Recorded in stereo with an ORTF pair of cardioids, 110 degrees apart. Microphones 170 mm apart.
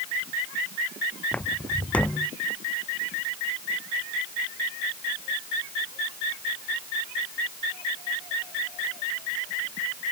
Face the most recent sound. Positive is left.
turn(degrees=5)